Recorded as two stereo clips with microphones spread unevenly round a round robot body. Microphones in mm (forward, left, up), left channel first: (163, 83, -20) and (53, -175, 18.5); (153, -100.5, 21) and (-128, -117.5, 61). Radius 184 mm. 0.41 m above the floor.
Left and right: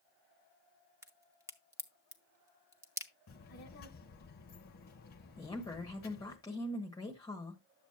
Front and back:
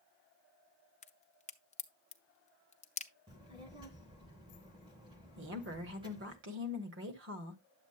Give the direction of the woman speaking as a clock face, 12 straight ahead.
7 o'clock.